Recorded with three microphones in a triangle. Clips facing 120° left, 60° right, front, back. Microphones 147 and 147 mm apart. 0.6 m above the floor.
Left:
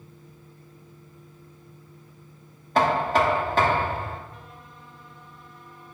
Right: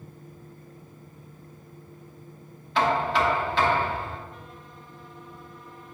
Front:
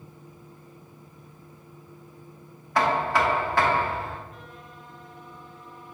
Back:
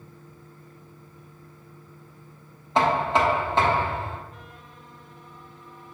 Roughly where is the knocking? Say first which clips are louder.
Left 2 dB, back 2 dB; behind left.